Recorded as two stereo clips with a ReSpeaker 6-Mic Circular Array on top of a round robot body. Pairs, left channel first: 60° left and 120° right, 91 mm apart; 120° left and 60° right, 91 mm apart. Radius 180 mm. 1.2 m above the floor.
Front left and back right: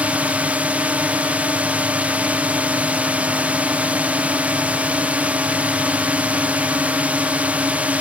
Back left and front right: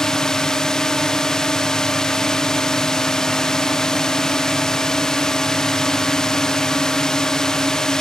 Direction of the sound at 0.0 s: 165° right.